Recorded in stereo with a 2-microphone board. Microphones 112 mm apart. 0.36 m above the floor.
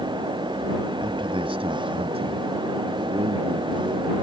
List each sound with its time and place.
1.0 s a man speaking: 45° right (ahead or behind); by 4.1 s 75° right (ahead or behind)